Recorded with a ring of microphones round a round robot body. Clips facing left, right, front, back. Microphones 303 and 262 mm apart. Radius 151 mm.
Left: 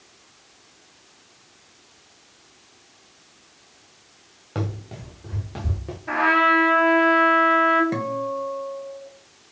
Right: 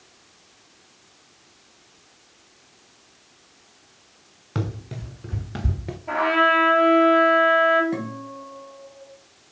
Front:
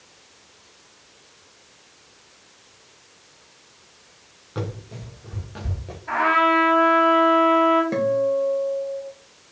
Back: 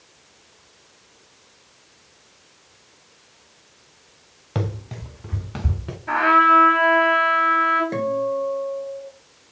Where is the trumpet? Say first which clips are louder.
Even, back 1 dB; 145° left, 3 m.